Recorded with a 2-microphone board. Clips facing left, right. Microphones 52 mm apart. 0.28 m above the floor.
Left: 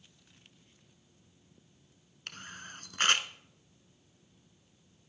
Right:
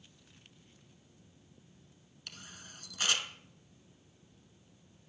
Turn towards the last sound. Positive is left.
turn(degrees=45)  # may be behind; listen again after turning